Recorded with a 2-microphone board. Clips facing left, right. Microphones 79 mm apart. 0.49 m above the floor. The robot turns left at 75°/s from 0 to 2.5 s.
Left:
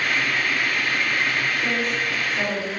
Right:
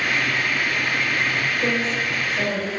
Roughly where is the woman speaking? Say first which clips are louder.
Right 1 dB; right.